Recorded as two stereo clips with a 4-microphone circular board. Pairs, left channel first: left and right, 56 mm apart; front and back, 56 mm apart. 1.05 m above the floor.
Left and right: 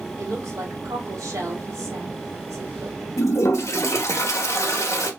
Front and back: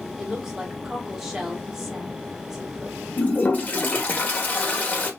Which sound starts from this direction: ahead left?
A toilet flushing, at 3.2 s.